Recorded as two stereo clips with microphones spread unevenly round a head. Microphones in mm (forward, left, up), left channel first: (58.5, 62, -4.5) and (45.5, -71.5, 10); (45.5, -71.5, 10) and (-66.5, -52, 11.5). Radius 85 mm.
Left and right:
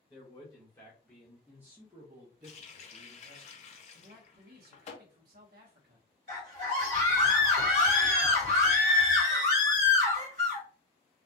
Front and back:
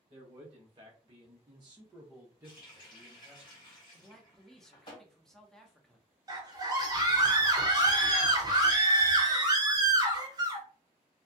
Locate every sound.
0.1 s a man speaking: 125° left, 1.1 m; by 3.4 s 115° right, 1.2 m
2.4 s a running tap: 50° left, 0.6 m
3.9 s a man speaking: 95° right, 0.8 m
6.3 s a scream: 140° right, 1.2 m